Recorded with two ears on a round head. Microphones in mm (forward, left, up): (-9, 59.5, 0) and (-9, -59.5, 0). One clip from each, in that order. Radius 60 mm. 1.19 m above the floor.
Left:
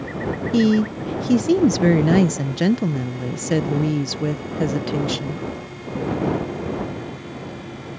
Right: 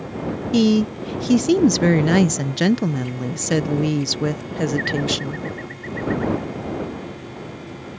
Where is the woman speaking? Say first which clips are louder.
Right 1 dB; 30° right (ahead or behind).